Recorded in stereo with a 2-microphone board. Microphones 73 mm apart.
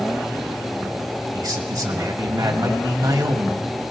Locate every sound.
1.3 s a man speaking: 55° right (ahead or behind), 2 m